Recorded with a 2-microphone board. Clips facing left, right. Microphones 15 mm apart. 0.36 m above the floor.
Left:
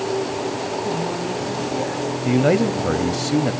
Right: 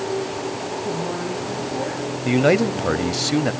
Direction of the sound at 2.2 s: 25° right (ahead or behind).